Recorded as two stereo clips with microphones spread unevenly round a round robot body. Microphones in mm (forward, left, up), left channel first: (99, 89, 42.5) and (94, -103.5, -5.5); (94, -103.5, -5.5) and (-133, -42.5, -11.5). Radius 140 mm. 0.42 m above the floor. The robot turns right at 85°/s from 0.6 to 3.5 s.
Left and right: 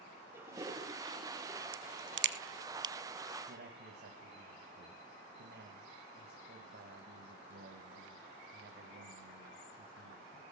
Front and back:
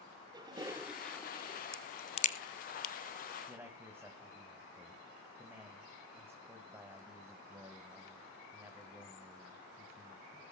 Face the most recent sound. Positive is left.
turn(degrees=-115)